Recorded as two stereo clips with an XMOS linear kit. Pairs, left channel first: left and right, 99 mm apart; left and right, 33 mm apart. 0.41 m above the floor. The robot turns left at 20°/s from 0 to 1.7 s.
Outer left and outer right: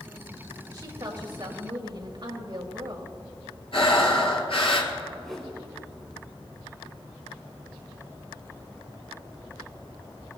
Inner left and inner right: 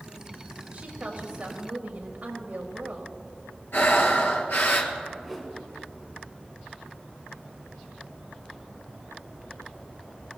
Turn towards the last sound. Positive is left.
turn(degrees=5)  # may be behind; listen again after turning